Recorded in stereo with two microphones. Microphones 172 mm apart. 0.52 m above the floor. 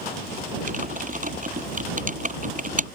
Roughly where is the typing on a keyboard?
Right.